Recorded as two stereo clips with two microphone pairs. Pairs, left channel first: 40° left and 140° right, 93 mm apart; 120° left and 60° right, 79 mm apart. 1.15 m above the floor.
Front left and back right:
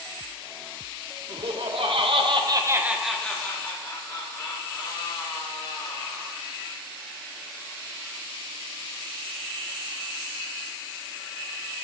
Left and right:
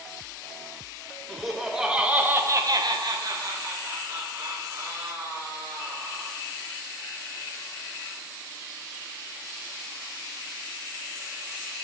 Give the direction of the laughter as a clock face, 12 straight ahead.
5 o'clock.